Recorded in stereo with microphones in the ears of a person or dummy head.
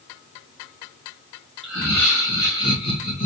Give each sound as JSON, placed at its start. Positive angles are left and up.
{"t": 1.6, "sound": "laughter", "side_deg": 5, "distance_m": 1.7}